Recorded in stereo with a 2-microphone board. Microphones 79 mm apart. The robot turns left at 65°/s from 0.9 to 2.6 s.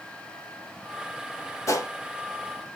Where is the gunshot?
40° left (ahead or behind), 0.9 m; by 1.9 s 45° left (ahead or behind), 0.9 m.